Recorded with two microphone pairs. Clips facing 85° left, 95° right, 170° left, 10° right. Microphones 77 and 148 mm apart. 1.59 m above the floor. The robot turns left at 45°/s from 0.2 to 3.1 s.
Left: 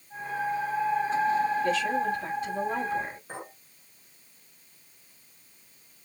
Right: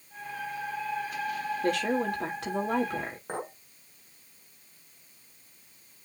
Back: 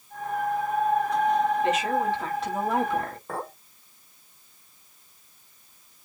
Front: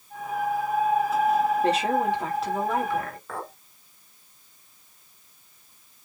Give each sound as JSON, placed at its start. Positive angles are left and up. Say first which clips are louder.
{"t": 1.6, "sound": "a woman speaking", "louder": "left 1 dB, front 1 dB", "azimuth_deg": -65, "distance_m": 4.0}
{"t": 3.3, "sound": "a clink", "louder": "right 5 dB, back 2 dB", "azimuth_deg": -130, "distance_m": 5.0}